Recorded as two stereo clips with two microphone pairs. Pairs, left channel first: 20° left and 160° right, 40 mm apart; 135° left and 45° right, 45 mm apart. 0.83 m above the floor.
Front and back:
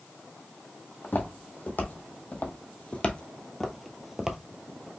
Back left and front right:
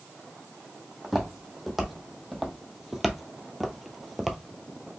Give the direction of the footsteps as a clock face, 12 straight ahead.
11 o'clock.